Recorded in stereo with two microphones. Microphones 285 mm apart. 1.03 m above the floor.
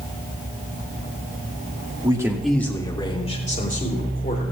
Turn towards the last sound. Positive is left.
turn(degrees=35)  # may be behind; listen again after turning